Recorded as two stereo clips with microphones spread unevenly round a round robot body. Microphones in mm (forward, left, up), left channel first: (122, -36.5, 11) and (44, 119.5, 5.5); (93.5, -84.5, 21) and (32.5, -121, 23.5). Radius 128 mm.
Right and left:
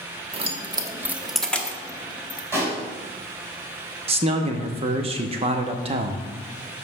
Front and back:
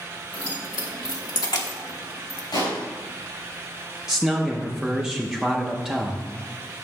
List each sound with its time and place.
0.3 s keys jangling: 65° left, 0.9 m; by 2.4 s straight ahead, 1.3 m
2.5 s a pop: 40° left, 3 m
4.1 s a man speaking: 135° left, 0.6 m